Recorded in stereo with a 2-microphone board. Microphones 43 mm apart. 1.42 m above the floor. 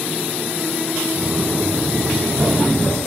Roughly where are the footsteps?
Right.